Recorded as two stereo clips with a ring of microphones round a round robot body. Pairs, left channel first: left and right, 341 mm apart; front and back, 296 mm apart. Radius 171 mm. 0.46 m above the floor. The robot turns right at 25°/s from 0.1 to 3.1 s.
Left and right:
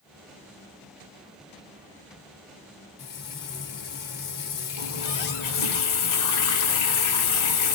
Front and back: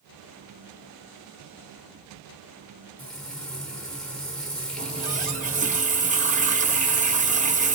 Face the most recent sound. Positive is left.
turn(degrees=115)